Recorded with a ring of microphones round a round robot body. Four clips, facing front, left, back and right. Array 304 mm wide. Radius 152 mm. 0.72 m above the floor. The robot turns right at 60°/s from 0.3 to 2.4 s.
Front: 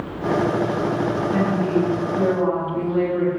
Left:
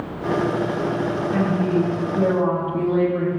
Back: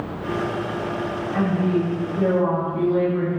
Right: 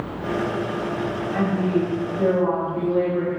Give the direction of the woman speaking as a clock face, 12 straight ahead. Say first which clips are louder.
Left 1 dB, back 1 dB; 11 o'clock.